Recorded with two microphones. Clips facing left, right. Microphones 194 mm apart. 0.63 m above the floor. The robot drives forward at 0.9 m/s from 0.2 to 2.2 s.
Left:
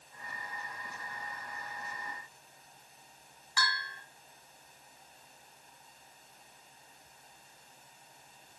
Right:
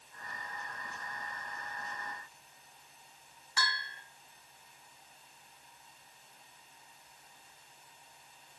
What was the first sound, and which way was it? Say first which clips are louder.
A bell: left 2 dB; 20° right (ahead or behind).